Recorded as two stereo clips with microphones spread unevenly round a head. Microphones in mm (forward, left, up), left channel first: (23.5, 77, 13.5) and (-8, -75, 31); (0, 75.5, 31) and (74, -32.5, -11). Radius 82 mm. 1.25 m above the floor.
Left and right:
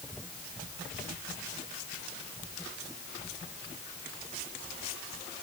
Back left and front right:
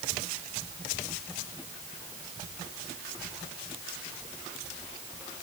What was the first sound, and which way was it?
Only background noise.